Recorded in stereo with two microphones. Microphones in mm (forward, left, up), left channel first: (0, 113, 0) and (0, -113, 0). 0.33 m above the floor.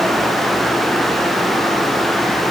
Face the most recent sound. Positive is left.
No sound to turn to.